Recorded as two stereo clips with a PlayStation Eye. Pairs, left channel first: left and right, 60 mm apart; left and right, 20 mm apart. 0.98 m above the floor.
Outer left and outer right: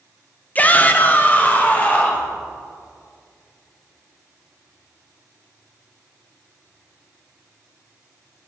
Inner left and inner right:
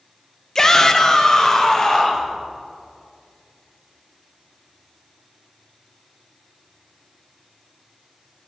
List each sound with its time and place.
0.6 s a shout: 25° left (ahead or behind), 0.6 m